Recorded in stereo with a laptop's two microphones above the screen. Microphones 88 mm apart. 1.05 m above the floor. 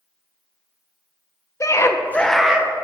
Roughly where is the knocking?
No knocking in this recording.